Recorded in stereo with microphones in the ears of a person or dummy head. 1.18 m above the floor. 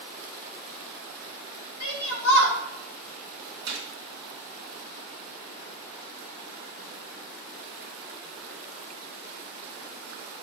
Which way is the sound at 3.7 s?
55° right (ahead or behind).